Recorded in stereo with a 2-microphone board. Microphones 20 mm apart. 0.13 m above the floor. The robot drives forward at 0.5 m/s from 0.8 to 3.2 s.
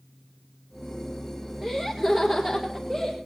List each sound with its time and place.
1.6 s laughter: 20° right (ahead or behind), 1.9 m; by 3.2 s 15° right (ahead or behind), 2.5 m